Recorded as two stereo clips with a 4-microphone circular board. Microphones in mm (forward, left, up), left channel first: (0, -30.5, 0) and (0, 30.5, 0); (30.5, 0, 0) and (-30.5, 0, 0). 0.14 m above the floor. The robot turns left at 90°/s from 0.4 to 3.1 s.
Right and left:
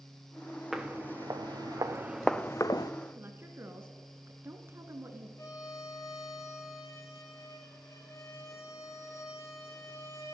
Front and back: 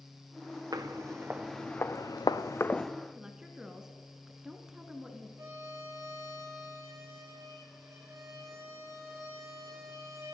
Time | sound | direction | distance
0.7 | footsteps | 175° left | 1.3 m
3.1 | a woman speaking | 100° left | 1.4 m
5.4 | a violin | 135° right | 2.5 m